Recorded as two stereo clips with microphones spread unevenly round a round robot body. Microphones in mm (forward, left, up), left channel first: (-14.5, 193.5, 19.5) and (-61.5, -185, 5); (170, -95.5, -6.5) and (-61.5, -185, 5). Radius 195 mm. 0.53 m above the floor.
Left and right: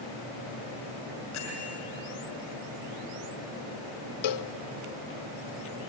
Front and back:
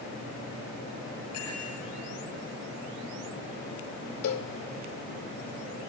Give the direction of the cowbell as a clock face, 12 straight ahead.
10 o'clock.